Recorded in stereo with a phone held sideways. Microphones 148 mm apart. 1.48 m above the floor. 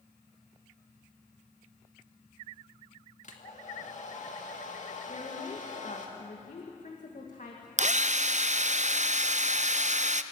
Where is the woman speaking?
60° left (ahead or behind), 2.0 m.